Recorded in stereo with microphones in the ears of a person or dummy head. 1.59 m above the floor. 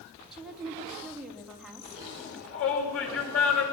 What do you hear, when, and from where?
0.3 s a woman speaking: centre (ahead or behind), 3 m
2.2 s a shout: 85° left, 9.5 m